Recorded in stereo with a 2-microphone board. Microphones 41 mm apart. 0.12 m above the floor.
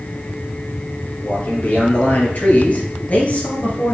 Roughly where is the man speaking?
Left.